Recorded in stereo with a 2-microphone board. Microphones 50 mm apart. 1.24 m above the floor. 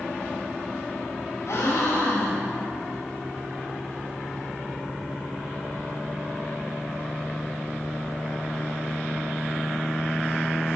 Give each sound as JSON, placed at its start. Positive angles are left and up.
{"t": 1.5, "sound": "a gasp", "side_deg": 70, "distance_m": 4.5}